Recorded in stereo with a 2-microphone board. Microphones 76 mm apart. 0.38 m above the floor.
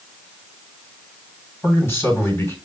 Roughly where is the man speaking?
Left.